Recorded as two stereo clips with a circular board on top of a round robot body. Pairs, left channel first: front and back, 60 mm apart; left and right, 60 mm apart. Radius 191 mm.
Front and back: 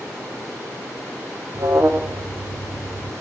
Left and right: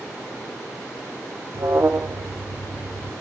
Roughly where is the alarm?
Behind right.